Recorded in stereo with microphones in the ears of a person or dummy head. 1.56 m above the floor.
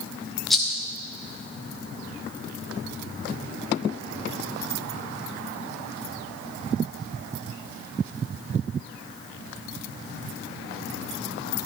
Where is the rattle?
Centre (ahead or behind), 0.9 m.